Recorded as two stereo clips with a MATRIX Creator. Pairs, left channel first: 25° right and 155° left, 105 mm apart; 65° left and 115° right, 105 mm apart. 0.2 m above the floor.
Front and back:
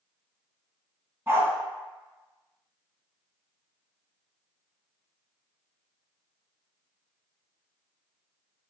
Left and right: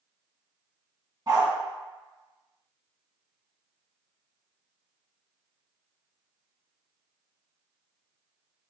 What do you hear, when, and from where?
1.3 s a dog barking: 150° right, 0.7 m